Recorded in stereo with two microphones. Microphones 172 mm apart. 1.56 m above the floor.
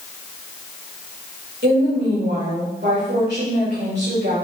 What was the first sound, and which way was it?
A woman speaking, 85° right.